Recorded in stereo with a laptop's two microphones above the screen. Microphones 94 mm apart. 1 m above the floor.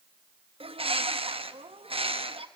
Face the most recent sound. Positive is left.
turn(degrees=-85)